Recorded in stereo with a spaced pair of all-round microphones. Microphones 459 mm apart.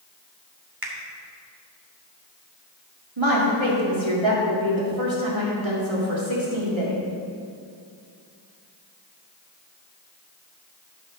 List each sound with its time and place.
0.8 s a finger snap: 50° right (ahead or behind), 1.6 m
3.2 s a woman speaking: 80° right, 2.5 m